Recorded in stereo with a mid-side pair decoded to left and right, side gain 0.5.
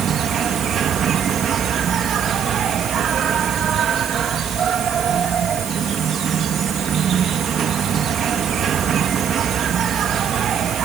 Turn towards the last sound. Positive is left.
turn(degrees=-55)